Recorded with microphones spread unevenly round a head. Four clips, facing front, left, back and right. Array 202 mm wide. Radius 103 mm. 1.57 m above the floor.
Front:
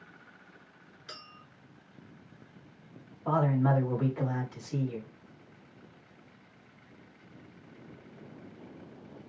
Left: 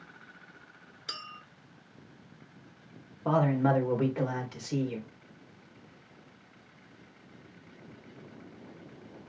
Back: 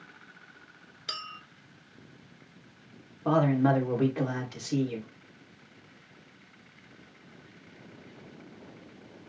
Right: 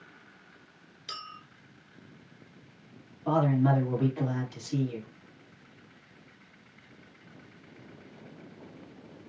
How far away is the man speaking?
About 2.5 m.